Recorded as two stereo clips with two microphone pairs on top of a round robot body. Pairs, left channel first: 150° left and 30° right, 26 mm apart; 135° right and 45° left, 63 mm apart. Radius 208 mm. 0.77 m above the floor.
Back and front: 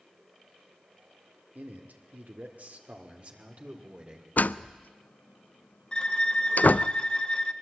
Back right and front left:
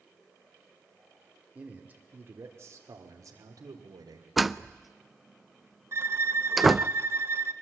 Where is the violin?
95° left, 1.2 m.